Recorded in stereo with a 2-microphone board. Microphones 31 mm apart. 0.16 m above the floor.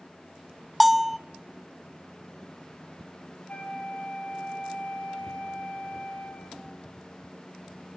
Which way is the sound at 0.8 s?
5° right (ahead or behind).